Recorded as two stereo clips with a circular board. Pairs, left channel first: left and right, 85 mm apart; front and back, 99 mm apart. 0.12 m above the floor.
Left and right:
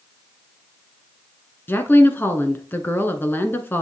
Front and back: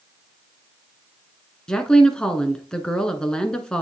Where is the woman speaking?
70° left, 1.1 m.